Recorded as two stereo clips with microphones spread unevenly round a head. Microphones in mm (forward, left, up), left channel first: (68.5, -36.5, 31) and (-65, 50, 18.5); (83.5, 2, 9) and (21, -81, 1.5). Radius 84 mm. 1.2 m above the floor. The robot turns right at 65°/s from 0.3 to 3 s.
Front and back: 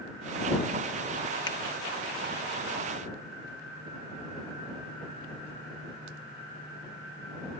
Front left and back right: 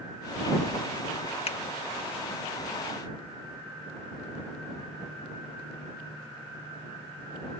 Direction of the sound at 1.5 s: 30° left.